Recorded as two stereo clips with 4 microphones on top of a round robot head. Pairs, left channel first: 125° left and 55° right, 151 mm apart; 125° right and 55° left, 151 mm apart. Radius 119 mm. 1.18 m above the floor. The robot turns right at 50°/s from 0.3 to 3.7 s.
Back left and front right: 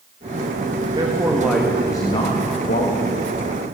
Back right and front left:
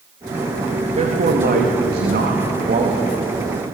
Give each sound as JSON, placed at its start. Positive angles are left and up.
{"t": 0.9, "sound": "a man speaking", "azimuth_deg": 5, "distance_m": 2.5}